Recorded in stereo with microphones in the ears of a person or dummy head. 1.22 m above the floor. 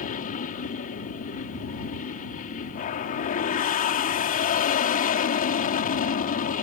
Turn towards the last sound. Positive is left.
turn(degrees=40)  # may be behind; listen again after turning